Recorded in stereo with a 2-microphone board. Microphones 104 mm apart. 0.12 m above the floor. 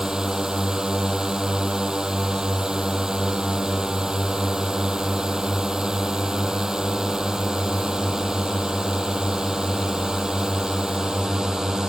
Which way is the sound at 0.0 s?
5° right (ahead or behind).